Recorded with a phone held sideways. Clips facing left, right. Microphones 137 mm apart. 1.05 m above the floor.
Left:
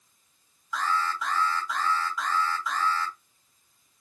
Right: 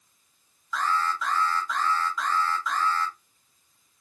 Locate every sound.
0.7 s an alarm: 10° left (ahead or behind), 3 m